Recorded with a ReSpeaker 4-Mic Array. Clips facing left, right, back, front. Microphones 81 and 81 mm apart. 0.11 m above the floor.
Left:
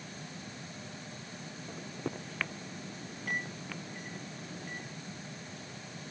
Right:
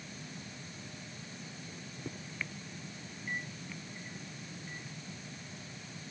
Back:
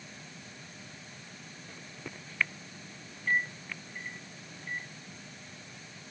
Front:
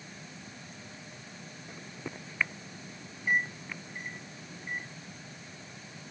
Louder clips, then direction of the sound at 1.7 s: Left 8 dB, front 4 dB; 75° left.